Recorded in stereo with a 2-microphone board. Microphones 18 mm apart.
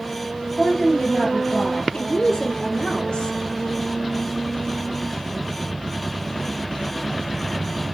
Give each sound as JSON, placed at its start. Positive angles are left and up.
{"t": 0.6, "sound": "a woman speaking", "side_deg": 65, "distance_m": 3.0}
{"t": 1.9, "sound": "a woman speaking", "side_deg": 65, "distance_m": 2.5}